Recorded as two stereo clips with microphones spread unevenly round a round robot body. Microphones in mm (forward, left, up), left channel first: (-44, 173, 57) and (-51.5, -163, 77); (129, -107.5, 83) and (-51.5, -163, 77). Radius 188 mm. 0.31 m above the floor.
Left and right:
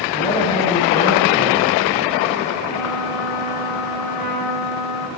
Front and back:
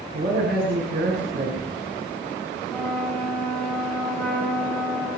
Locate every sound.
0.1 s a man speaking: 160° left, 5.5 m
2.7 s a trumpet: 105° left, 9.5 m